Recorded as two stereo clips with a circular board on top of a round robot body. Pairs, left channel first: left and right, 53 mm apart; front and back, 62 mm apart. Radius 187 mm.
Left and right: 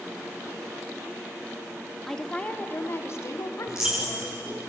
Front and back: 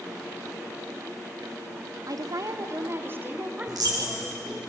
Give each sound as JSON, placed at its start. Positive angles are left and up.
{"t": 2.1, "sound": "a woman speaking", "azimuth_deg": 175, "distance_m": 1.6}
{"t": 3.7, "sound": "a dropped coin", "azimuth_deg": -165, "distance_m": 5.0}